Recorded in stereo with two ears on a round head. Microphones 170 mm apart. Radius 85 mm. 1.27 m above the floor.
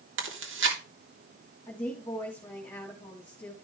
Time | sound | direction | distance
0.2 | chewing | 70° right (ahead or behind) | 3 m
1.7 | a woman speaking | 10° left (ahead or behind) | 2.5 m